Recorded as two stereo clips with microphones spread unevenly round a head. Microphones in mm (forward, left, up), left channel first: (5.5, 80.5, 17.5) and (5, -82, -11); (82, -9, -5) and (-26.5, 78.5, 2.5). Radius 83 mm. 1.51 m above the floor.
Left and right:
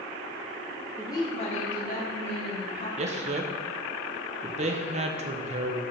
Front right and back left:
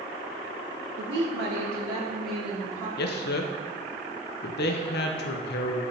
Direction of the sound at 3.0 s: 35° right.